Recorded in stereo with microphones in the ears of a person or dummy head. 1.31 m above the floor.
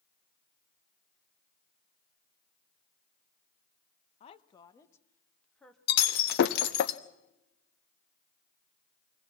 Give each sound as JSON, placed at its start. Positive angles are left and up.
{"t": 4.2, "sound": "a woman speaking", "side_deg": 45, "distance_m": 1.1}
{"t": 5.9, "sound": "breaking glass", "side_deg": 50, "distance_m": 1.0}